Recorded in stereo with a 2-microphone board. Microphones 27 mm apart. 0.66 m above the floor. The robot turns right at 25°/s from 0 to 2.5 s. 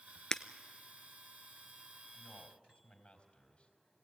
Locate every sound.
0.3 s breaking glass: 25° left (ahead or behind), 0.7 m
2.1 s a man speaking: 45° left (ahead or behind), 4 m; by 3.7 s 35° left (ahead or behind), 4 m